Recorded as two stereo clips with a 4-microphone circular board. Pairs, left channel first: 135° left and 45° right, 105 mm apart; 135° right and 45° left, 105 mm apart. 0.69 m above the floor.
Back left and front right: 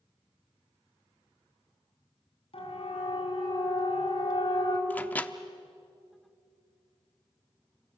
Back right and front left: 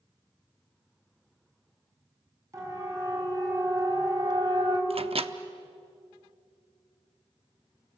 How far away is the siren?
About 5 m.